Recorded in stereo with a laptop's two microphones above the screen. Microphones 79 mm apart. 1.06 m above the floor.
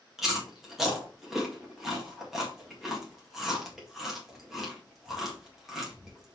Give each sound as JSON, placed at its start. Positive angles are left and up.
{"t": 0.2, "sound": "chewing", "side_deg": -5, "distance_m": 1.9}